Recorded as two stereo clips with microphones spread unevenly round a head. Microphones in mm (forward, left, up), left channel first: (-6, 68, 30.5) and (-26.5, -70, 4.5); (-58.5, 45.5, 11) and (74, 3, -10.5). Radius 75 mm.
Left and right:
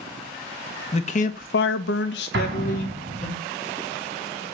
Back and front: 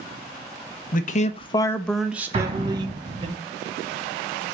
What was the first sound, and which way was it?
A man speaking, 130° left.